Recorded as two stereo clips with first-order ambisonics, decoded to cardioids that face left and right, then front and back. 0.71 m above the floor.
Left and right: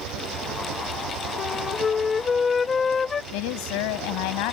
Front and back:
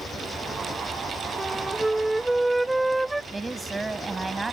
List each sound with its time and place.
0.0 s an engine running: 75° right
1.4 s a flute: 100° left
3.3 s a woman speaking: 95° left